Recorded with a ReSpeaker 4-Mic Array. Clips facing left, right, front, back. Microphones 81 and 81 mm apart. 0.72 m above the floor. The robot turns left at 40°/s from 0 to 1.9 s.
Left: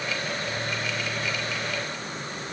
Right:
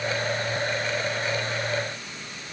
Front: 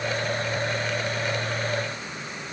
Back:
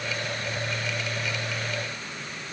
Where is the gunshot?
I don't hear a gunshot.